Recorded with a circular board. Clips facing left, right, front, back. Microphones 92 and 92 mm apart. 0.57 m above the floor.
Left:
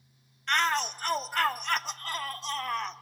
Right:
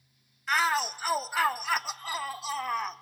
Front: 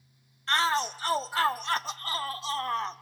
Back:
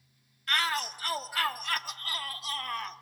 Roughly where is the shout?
Ahead.